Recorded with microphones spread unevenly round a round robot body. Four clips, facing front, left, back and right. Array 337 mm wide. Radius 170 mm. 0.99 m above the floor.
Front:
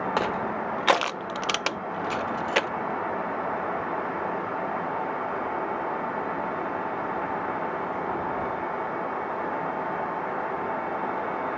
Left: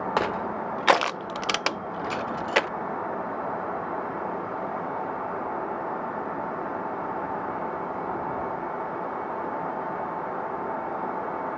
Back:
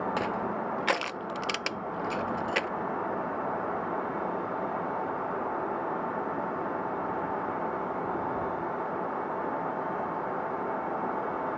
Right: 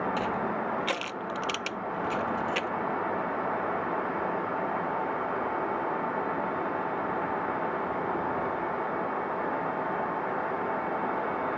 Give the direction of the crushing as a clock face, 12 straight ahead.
10 o'clock.